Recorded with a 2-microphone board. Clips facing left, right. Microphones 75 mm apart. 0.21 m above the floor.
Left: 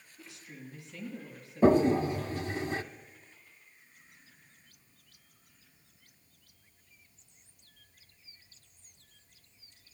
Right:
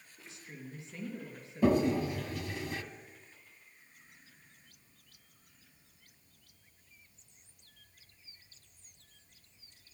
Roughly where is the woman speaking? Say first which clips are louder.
Even; right.